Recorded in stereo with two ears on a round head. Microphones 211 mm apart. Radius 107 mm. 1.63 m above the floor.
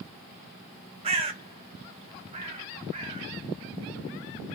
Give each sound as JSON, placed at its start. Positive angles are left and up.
{"t": 1.0, "sound": "a bird", "side_deg": -25, "distance_m": 0.6}